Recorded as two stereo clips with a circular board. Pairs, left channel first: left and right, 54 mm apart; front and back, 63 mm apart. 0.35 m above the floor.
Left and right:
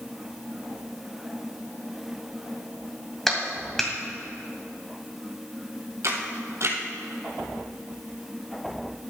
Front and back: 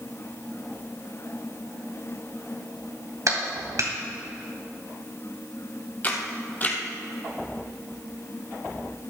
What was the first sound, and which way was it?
A clap, 175° left.